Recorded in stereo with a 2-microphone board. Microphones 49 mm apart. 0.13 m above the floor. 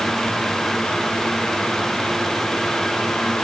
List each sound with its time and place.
Only background noise.